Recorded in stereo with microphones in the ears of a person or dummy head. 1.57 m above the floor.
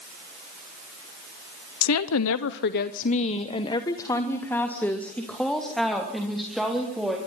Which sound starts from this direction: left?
A woman speaking, at 1.8 s.